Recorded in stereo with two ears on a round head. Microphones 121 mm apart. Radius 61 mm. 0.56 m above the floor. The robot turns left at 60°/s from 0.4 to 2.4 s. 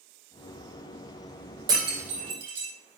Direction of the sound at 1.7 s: 30° right (ahead or behind).